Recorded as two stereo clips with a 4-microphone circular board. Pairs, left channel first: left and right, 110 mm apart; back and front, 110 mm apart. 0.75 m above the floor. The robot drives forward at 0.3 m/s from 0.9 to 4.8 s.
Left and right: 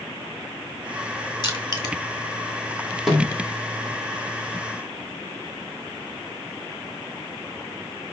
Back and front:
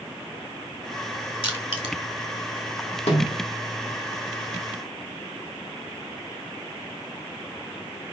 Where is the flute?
I don't hear a flute.